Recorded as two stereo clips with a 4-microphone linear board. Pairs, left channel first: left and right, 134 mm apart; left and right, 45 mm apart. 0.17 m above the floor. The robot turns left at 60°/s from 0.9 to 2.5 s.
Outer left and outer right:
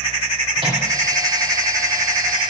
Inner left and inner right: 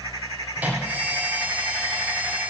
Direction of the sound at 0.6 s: 35° right (ahead or behind).